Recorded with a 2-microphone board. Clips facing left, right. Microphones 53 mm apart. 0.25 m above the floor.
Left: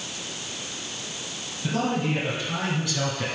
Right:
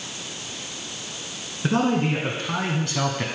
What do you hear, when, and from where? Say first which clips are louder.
1.6 s a man speaking: right 4 dB; 60° right (ahead or behind), 3 m; by 3.2 s 35° right (ahead or behind), 2 m